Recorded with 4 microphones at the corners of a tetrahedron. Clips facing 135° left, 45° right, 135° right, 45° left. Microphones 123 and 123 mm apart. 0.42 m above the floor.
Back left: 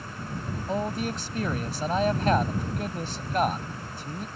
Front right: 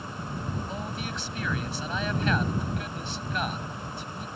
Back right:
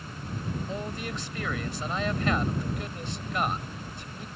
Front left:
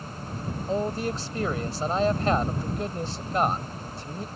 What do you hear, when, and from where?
0.7 s a man speaking: 95° left